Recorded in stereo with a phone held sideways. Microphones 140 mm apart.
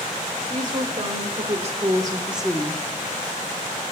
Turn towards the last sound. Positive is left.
turn(degrees=25)  # may be behind; listen again after turning